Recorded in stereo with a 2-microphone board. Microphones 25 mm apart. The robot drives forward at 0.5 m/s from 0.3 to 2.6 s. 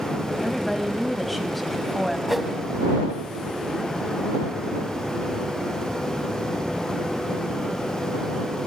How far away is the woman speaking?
About 1.0 m.